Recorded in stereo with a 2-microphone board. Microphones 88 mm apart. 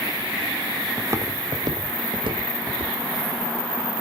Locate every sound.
1.0 s footsteps: 25° right (ahead or behind), 1.8 m; by 2.9 s 75° right (ahead or behind), 3.5 m